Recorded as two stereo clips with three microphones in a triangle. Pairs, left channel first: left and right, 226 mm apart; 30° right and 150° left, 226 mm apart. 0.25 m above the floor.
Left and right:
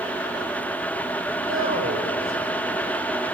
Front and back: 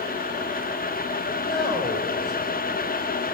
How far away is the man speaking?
About 6.5 m.